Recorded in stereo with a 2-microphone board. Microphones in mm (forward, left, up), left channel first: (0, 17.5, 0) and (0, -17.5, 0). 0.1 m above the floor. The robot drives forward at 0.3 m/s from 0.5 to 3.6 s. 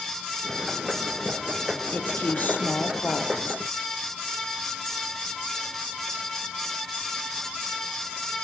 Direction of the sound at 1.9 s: 60° left (ahead or behind).